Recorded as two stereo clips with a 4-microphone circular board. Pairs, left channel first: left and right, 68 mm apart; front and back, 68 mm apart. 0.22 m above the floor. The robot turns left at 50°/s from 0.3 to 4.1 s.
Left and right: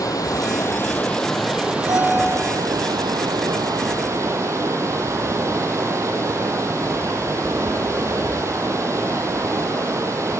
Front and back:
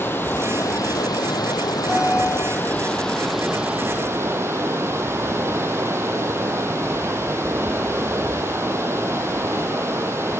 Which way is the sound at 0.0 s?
60° left.